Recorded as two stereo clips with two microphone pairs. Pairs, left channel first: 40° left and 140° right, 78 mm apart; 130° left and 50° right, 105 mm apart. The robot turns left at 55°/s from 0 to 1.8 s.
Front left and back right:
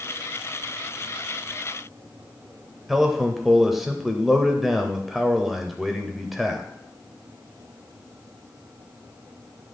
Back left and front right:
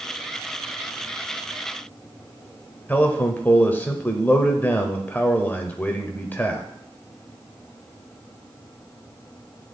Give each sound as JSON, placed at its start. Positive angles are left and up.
{"t": 2.9, "sound": "a man speaking", "azimuth_deg": 135, "distance_m": 0.9}